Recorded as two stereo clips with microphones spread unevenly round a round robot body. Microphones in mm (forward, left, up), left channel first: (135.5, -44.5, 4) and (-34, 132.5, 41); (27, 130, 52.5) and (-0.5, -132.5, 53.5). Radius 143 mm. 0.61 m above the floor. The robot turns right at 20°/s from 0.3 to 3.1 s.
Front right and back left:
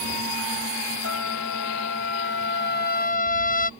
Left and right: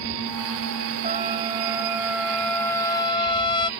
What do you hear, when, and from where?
1.0 s a trumpet: 30° right; by 3.7 s 10° left